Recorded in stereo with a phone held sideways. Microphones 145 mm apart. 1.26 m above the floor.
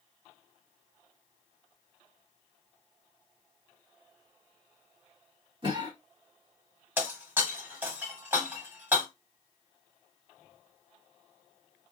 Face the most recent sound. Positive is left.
turn(degrees=-15)  # may be behind; listen again after turning